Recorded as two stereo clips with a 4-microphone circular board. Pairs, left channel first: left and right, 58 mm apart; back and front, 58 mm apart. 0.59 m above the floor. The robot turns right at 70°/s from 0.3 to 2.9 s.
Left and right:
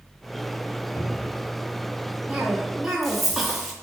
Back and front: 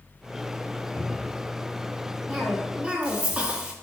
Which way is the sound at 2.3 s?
45° right.